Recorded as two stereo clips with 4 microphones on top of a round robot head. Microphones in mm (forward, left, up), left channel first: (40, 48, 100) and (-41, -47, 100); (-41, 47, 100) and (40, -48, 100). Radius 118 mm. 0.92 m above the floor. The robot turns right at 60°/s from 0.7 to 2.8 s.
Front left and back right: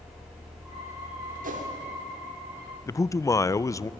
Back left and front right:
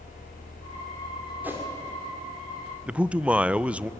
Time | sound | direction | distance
1.4 | a whoosh | 125° right | 2.5 m
2.9 | a man speaking | 20° left | 0.5 m